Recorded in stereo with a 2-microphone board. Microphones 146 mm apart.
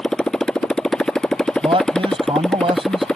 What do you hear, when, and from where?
0.0 s a motorcycle: 5° left (ahead or behind)
1.6 s a man speaking: 35° right (ahead or behind)